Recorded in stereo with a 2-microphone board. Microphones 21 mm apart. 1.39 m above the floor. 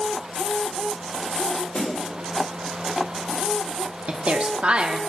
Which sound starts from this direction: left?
A snare drum, at 1.7 s.